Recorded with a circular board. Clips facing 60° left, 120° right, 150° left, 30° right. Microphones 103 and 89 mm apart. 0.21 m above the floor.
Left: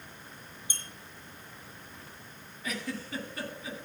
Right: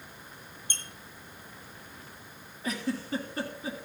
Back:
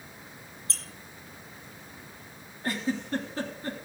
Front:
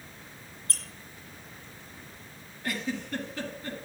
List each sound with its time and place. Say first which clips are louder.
0.7 s a squeak: right 3 dB, front 1 dB; 15° right, 1.7 m
2.6 s a giggle: right 5 dB, back 3 dB; 165° right, 2 m